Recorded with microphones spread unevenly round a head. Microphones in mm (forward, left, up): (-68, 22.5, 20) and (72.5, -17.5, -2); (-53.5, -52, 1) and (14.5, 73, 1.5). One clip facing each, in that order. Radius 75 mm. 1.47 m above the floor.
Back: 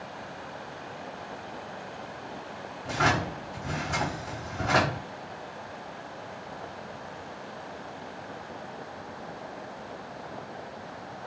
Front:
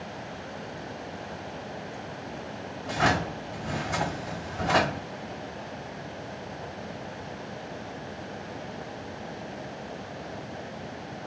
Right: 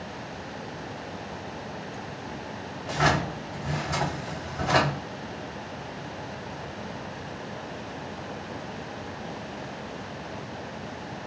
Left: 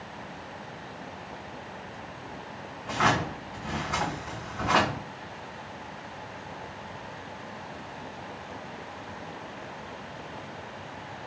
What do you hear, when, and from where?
2.8 s a drawer: 90° right, 1.7 m